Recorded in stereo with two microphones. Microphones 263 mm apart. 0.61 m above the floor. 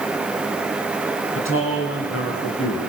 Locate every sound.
1.4 s a man speaking: 55° left (ahead or behind), 5 m; by 2.8 s 65° left (ahead or behind), 7 m